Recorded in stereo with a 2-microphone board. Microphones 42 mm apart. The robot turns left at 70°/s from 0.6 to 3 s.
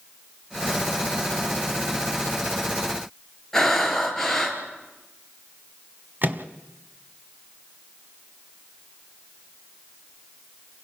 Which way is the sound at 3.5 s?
10° left (ahead or behind).